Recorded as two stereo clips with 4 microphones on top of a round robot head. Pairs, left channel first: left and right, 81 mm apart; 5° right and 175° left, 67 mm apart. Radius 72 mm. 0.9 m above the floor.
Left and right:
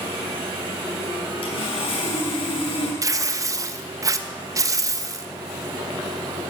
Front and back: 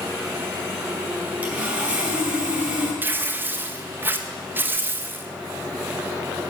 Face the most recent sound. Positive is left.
turn(degrees=-130)